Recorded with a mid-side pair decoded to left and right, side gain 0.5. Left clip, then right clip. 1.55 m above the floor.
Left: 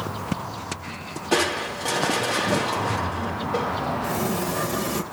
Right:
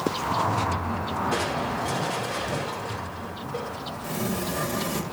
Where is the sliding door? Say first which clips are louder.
Left 4 dB; 15° left, 2.5 m.